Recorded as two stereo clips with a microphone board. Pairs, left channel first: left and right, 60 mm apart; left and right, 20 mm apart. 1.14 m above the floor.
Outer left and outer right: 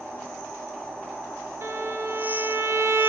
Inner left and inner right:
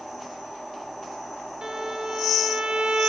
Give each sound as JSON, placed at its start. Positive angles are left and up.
{"t": 1.6, "sound": "a violin", "side_deg": -50, "distance_m": 1.2}